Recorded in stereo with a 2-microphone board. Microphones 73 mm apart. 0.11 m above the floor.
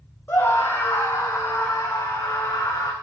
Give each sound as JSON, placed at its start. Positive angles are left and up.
{"t": 0.3, "sound": "a scream", "side_deg": 30, "distance_m": 3.5}